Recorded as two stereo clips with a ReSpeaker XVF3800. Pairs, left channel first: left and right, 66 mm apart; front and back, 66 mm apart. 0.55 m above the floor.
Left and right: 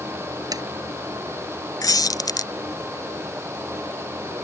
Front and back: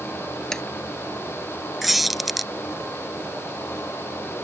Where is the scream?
I don't hear a scream.